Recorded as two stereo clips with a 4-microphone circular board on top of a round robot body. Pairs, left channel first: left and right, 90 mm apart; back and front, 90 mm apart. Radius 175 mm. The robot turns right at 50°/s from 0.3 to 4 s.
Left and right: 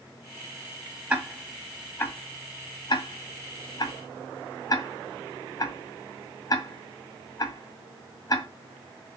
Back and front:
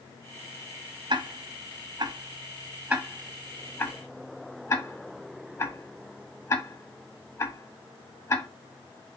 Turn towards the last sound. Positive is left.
turn(degrees=125)